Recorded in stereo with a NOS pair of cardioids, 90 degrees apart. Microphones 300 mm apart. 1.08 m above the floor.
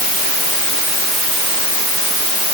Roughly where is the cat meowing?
I don't hear a cat meowing.